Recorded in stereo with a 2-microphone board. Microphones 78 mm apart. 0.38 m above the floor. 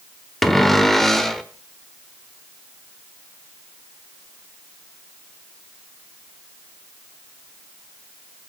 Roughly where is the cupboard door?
Centre.